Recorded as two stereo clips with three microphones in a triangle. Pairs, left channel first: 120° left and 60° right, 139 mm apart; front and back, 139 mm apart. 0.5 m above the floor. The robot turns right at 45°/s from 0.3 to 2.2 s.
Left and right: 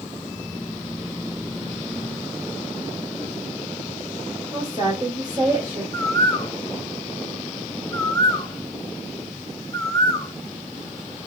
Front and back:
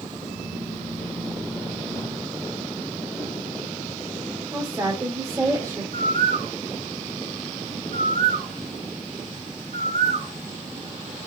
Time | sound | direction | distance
4.5 | a woman speaking | 120° right | 2 m
5.9 | a bird | 175° right | 0.8 m